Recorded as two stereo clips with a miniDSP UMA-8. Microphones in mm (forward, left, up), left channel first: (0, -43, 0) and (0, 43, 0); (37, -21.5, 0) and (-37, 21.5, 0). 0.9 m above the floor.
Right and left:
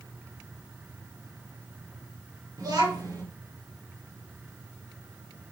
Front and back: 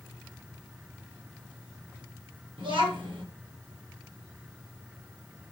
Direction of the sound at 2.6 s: 135° left.